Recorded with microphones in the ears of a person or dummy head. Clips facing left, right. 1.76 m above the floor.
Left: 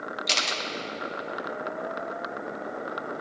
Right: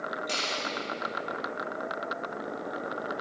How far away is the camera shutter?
About 1.2 m.